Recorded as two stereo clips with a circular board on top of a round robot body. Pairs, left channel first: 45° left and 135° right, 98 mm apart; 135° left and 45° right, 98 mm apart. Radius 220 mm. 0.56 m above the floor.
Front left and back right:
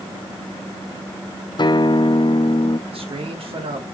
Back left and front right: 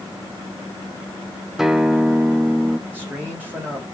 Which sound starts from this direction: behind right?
A man speaking, at 2.9 s.